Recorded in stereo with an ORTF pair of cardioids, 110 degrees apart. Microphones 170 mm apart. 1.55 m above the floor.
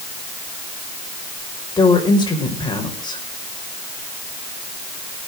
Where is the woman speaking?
25° left, 5.5 m.